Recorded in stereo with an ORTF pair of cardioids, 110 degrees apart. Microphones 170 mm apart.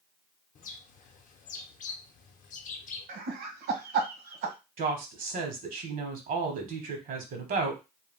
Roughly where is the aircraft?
No aircraft in this recording.